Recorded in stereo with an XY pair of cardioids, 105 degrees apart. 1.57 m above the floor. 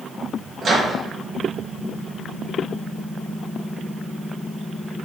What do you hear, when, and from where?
0.6 s a microwave: 40° right, 1.6 m